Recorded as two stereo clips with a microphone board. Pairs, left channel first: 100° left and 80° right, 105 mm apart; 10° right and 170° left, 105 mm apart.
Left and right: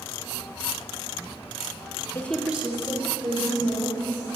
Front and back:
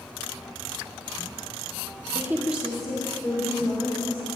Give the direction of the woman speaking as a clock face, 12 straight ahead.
8 o'clock.